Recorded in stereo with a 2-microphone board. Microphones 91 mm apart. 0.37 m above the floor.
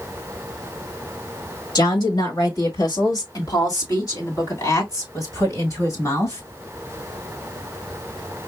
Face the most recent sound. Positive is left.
turn(degrees=35)  # may be behind; listen again after turning